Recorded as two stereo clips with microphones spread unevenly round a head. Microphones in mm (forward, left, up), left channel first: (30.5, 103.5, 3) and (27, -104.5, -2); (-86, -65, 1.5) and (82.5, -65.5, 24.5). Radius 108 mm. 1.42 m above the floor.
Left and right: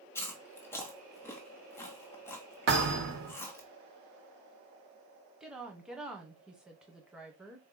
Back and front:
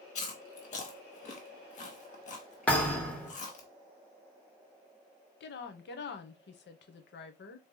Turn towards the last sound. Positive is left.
turn(degrees=-175)